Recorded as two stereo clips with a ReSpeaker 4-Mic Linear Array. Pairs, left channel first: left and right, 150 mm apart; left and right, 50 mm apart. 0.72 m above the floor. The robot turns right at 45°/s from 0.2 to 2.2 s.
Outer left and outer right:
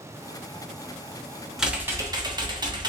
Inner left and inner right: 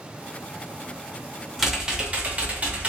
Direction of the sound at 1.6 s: 5° right (ahead or behind).